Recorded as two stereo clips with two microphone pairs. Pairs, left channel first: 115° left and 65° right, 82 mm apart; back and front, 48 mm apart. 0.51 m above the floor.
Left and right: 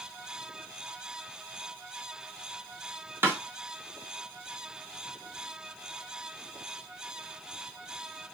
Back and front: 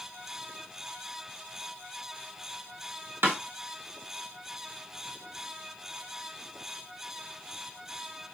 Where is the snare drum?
10° right, 1.6 m.